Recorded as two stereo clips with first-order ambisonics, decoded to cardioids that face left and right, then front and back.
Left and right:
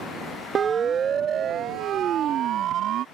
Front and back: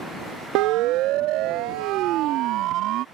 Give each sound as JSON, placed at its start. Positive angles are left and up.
{"t": 0.6, "sound": "a siren", "azimuth_deg": -155}